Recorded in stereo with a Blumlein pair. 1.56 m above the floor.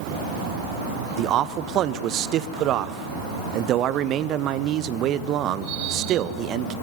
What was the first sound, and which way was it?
A man speaking, 35° right.